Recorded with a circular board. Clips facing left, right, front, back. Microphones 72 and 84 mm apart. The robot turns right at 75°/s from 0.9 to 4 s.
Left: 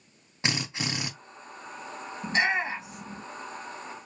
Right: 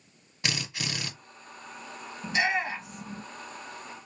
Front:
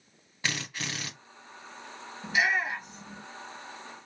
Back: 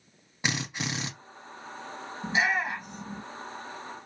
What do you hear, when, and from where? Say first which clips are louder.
0.4 s a drill: left 3 dB, back 3 dB; 125° left, 0.9 m; by 1.1 s 145° left, 0.9 m
2.2 s a shout: left 1 dB, even; 120° left, 2.5 m; by 3.2 s 165° right, 2.5 m